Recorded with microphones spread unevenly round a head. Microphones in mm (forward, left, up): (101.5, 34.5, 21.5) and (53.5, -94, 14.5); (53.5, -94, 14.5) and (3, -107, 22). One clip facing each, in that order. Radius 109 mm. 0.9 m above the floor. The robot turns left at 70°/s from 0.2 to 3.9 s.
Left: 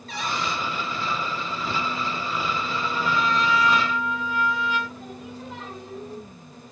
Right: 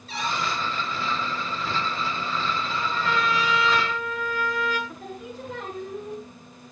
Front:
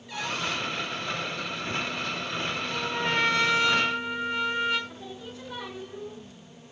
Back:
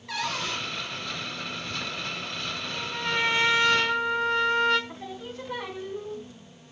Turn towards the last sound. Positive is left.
turn(degrees=-125)